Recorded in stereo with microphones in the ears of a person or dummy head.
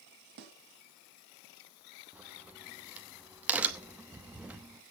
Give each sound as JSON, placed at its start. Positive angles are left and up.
{"t": 0.4, "sound": "a snare drum", "side_deg": -55, "distance_m": 2.5}
{"t": 2.1, "sound": "a crack", "side_deg": -10, "distance_m": 1.1}